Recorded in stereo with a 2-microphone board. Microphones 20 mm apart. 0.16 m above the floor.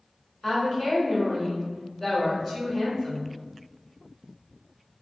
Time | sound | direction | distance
0.4 | a woman speaking | 25° left (ahead or behind) | 1.4 m